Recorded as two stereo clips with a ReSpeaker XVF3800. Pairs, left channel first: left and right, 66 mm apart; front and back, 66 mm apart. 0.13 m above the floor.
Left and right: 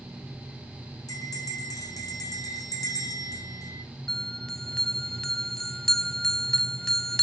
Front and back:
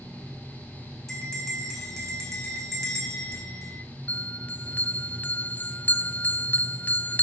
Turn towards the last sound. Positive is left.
turn(degrees=15)